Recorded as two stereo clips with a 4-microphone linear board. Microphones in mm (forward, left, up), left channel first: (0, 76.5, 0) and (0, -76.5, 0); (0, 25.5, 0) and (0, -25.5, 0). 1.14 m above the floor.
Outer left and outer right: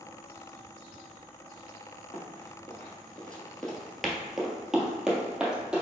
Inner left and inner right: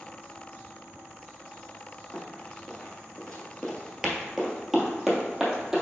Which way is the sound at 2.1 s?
10° left (ahead or behind).